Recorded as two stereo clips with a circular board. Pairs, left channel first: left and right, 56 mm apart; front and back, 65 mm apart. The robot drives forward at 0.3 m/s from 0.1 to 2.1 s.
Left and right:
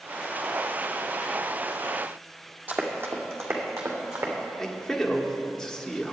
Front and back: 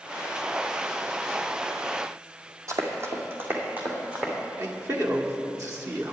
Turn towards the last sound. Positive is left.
turn(degrees=175)